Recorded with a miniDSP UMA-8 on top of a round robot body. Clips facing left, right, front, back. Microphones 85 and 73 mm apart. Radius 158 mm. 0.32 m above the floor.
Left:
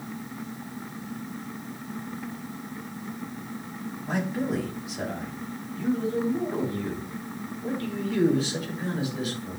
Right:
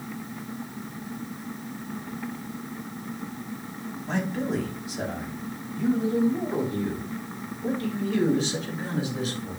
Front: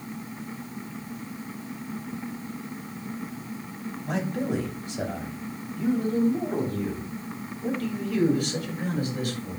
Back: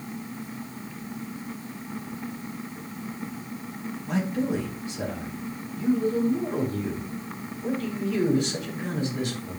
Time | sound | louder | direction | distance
4.0 | a man speaking | even, back 1 dB | 10° left | 3 m